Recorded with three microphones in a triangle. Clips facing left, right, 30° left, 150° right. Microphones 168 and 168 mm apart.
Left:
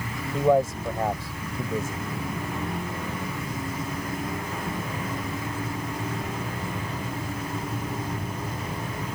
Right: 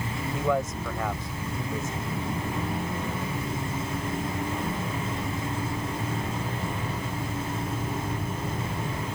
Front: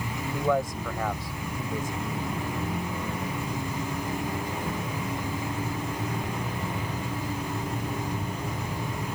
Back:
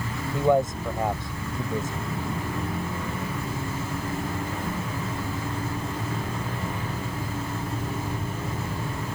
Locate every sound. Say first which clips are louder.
0.3 s a man speaking: left 7 dB, back 5 dB; 145° left